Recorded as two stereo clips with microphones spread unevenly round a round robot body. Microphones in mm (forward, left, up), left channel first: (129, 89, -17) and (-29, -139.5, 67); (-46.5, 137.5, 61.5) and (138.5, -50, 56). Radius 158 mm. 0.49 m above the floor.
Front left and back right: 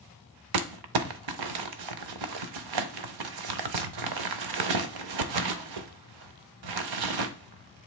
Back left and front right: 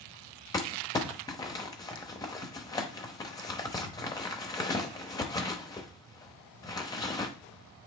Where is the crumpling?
145° right, 0.6 m.